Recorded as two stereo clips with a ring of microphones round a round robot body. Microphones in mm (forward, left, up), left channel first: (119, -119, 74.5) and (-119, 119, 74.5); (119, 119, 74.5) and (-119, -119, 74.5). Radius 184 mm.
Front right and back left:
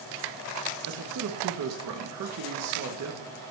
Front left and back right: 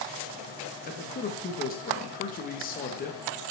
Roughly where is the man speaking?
Left.